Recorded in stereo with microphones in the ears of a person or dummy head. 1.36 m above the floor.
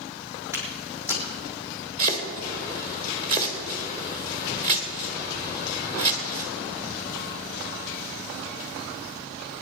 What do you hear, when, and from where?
0.5 s footsteps: 10° right (ahead or behind), 3.5 m
2.0 s chopping: 35° right (ahead or behind), 1.6 m